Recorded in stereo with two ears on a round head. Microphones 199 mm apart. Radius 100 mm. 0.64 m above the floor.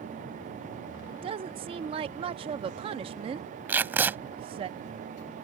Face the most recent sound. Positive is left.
turn(degrees=-10)  # may be behind; listen again after turning